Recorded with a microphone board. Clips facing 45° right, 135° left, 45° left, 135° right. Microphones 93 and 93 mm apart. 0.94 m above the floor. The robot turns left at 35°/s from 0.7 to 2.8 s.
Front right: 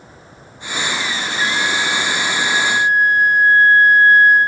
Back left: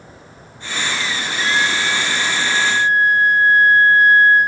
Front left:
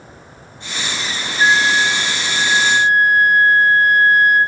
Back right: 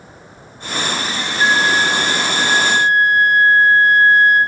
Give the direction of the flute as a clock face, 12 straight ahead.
1 o'clock.